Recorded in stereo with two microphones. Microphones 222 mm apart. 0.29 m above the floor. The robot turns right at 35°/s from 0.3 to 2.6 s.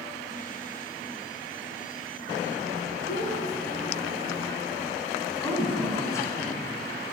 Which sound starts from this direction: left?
A child speaking, at 3.1 s.